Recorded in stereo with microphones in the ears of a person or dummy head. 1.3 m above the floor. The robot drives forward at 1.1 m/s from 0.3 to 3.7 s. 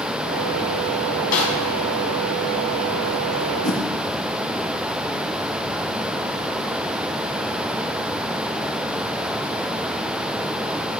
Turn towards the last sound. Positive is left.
turn(degrees=65)  # may be behind; listen again after turning